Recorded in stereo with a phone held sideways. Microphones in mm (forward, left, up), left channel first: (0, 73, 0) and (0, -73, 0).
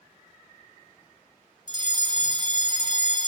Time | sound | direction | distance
1.7 | a fire alarm | 30° right (ahead or behind) | 1.2 m